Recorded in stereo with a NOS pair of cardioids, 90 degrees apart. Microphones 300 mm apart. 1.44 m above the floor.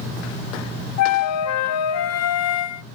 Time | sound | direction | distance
1.0 | a flute | 60° left | 0.6 m